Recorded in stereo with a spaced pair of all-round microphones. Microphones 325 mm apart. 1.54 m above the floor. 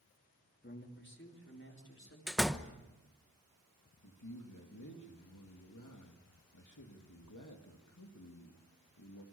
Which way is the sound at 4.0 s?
60° left (ahead or behind).